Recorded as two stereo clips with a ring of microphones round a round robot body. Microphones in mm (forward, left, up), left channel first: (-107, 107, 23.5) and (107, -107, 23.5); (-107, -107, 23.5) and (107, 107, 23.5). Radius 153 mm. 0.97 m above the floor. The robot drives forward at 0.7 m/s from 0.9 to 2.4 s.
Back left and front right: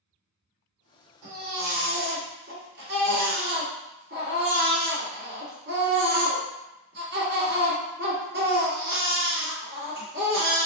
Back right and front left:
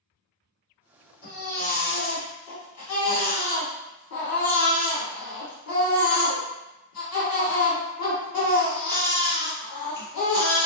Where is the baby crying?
75° right, 1.6 m; by 10.7 s 105° right, 1.6 m.